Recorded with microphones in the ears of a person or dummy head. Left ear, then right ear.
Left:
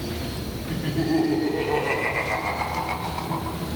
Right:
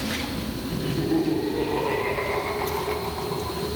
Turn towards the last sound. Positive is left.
turn(degrees=85)